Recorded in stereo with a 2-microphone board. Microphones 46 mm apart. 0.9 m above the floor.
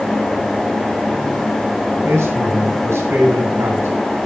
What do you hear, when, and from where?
2.0 s a man speaking: 80° right, 5.5 m